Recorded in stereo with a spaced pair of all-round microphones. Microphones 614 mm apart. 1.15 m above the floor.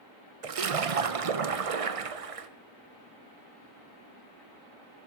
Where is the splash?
65° right (ahead or behind), 0.7 m.